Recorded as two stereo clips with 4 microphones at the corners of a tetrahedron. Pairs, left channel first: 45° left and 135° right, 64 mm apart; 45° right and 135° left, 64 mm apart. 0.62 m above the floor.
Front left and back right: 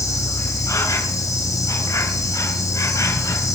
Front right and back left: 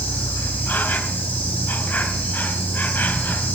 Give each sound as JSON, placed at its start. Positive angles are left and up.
{"t": 0.0, "sound": "an insect", "azimuth_deg": 15, "distance_m": 4.0}